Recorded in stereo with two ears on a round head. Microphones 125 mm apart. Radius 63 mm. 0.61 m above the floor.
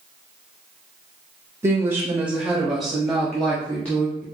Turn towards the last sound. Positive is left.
turn(degrees=10)  # may be behind; listen again after turning